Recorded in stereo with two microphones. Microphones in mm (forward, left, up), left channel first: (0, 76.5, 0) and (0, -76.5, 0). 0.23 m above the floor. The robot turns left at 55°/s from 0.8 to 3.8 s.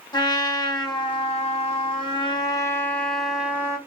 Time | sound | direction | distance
0.1 | a trumpet | 135° left | 1.0 m